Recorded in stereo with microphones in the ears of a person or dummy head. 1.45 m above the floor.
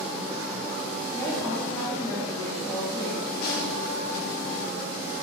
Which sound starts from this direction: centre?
A woman speaking, at 1.1 s.